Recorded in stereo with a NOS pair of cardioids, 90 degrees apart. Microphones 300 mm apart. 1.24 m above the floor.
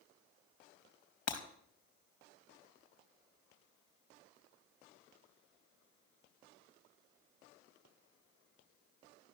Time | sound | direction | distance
1.3 | breaking glass | 60° left | 4 m